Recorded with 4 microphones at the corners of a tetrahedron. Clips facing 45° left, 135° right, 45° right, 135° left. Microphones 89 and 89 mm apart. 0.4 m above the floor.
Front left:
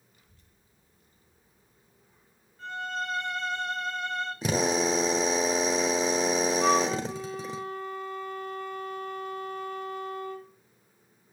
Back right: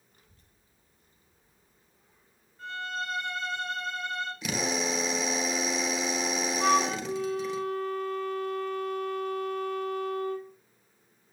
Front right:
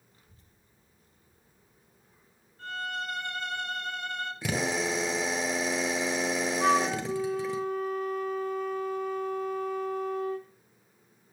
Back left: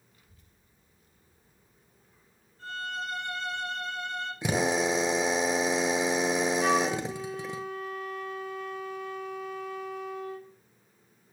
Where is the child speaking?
100° right, 1.1 m; by 3.6 s 75° right, 4.5 m.